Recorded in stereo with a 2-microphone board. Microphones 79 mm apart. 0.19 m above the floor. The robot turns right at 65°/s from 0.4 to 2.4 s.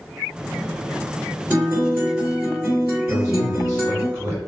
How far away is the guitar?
About 1.9 m.